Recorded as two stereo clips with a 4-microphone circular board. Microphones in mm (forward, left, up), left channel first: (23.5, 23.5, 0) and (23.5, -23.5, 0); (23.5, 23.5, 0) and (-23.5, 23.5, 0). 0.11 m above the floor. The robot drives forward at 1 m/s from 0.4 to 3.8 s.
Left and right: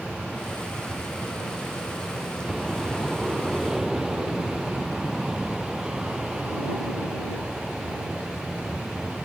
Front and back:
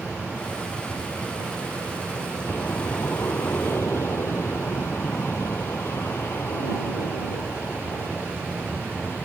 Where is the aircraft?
5° right; by 9.2 s 25° right.